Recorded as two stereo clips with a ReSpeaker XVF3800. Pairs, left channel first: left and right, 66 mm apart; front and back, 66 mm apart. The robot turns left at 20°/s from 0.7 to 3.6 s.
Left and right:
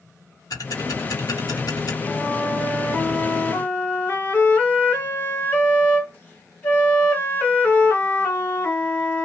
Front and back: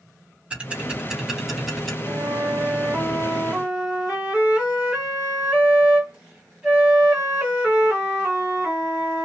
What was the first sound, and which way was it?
Ticking, 110° left.